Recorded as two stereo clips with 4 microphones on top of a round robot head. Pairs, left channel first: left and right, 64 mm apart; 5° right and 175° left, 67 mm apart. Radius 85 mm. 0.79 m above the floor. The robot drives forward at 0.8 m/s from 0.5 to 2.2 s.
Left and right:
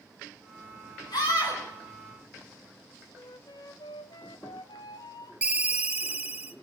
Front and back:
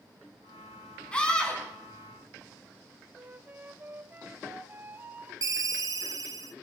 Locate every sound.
1.1 s a scream: 70° left, 7.5 m
3.1 s a flute: 110° left, 1.2 m
5.4 s a ringtone: 160° right, 1.4 m